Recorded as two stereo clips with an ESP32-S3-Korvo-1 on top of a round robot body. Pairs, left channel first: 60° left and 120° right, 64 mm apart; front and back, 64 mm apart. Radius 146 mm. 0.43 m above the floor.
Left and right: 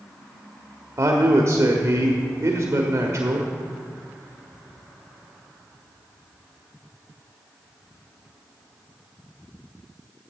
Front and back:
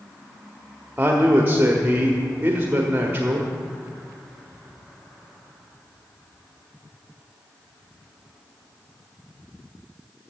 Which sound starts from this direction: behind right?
A man speaking, at 1.0 s.